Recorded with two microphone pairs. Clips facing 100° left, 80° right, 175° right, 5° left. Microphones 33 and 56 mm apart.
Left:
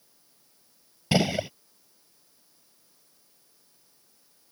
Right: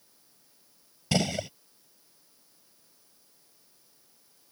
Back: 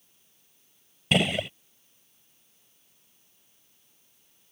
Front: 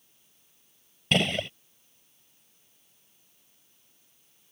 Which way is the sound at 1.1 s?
110° left.